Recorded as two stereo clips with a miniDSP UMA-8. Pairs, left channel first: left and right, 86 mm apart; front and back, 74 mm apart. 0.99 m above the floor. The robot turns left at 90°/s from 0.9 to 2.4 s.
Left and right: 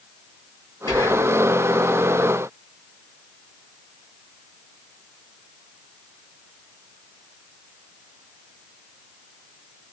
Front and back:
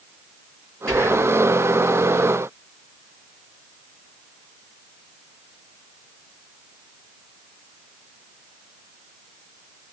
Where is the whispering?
70° left, 1.1 m; by 1.4 s 30° left, 1.1 m.